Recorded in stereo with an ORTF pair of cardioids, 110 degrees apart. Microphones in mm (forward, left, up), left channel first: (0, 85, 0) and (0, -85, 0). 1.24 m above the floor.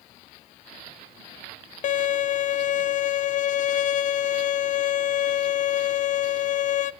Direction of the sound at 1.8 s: 50° left.